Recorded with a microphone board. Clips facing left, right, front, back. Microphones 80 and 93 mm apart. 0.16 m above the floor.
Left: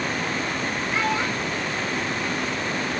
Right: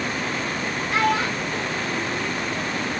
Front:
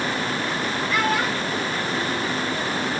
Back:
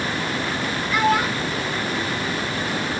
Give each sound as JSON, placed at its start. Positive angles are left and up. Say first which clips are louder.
{"t": 0.9, "sound": "a child speaking", "louder": "right 4 dB, back 4 dB", "azimuth_deg": -105, "distance_m": 2.0}